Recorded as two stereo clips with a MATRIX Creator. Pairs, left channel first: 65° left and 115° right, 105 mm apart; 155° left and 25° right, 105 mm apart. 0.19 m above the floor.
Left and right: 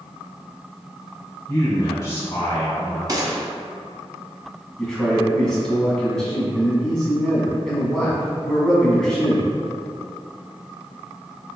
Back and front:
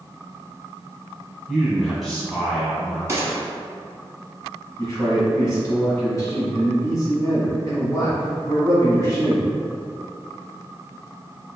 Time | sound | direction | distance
1.5 | a man speaking | 70° left | 1.3 m
3.1 | a gunshot | 75° right | 0.7 m
4.8 | a man speaking | 150° left | 1.4 m